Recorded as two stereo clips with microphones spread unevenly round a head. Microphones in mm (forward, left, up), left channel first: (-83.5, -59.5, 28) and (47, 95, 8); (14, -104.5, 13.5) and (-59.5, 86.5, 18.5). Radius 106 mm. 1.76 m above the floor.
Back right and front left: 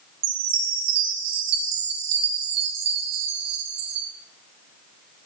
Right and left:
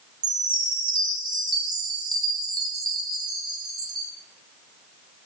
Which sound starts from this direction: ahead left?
A chime, at 0.2 s.